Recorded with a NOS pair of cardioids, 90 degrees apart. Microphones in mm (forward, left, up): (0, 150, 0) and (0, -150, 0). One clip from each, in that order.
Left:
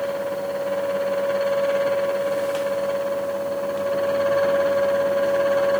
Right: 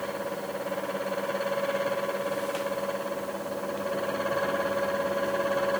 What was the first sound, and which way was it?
A fan, 10° left.